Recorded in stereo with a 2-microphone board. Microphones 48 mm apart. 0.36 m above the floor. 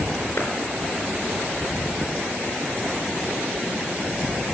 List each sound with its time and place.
0.4 s a clap: 50° left (ahead or behind), 5 m